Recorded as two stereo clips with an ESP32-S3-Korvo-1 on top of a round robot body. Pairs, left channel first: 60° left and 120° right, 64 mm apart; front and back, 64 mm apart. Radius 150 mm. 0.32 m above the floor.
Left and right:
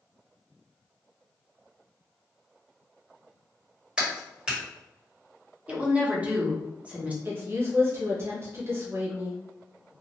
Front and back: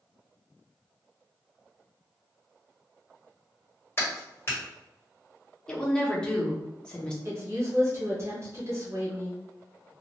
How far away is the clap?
About 1.8 m.